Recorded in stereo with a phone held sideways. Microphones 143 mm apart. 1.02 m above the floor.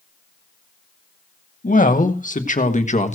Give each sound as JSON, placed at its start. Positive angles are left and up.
{"t": 1.6, "sound": "a woman speaking", "side_deg": 70, "distance_m": 1.9}